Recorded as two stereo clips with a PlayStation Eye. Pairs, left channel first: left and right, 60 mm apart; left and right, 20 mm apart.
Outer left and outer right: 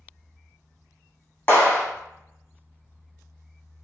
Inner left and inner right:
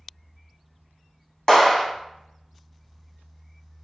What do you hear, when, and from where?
1.5 s a clap: 25° left (ahead or behind), 0.9 m